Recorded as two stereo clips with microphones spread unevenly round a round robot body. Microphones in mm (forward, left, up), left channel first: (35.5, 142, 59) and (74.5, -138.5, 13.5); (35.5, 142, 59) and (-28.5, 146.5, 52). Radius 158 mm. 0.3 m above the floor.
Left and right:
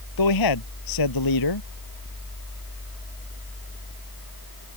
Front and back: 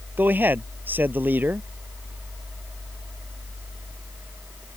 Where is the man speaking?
115° left.